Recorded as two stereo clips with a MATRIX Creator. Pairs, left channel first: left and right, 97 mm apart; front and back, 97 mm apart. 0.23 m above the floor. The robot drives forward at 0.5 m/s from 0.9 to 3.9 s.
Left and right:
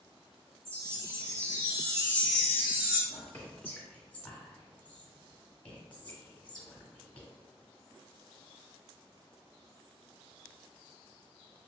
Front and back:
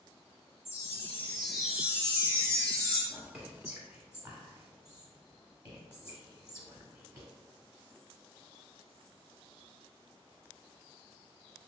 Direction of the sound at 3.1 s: 115° left.